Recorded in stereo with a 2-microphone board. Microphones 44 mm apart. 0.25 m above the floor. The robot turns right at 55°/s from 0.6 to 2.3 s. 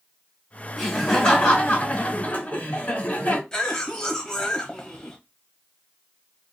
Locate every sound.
0.8 s laughter: 10° right, 1.6 m; by 3.4 s 75° left, 1.6 m
3.5 s a cough: 15° left (ahead or behind), 1.2 m